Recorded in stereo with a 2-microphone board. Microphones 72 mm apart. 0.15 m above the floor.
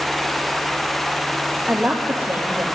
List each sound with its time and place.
1.7 s a man speaking: 25° right (ahead or behind), 3 m